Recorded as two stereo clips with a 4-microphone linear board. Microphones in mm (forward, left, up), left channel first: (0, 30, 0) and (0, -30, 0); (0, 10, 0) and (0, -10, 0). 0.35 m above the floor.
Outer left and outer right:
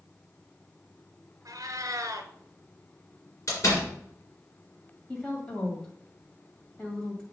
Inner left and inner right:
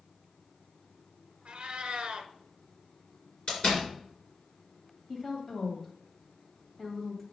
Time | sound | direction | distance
1.4 | a cat meowing | 65° right (ahead or behind) | 0.9 m
3.5 | a door slam | 50° left (ahead or behind) | 3 m
5.1 | a woman speaking | 15° left (ahead or behind) | 2 m